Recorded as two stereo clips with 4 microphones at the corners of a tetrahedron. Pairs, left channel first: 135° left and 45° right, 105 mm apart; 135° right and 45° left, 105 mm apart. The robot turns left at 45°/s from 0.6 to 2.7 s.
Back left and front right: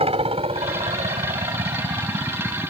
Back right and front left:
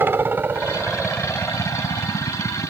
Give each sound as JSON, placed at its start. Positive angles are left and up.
{"t": 0.0, "sound": "a helicopter", "azimuth_deg": -25}